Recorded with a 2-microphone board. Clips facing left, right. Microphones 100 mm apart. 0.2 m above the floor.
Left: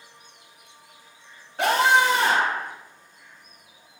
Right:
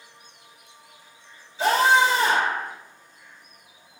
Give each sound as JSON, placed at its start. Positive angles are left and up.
{"t": 1.6, "sound": "a scream", "side_deg": 65, "distance_m": 3.5}